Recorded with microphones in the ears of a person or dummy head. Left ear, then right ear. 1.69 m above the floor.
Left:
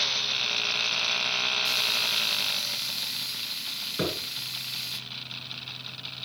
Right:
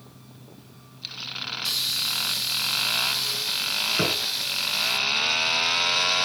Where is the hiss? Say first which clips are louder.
Left 1 dB; 10° right (ahead or behind), 2.0 m.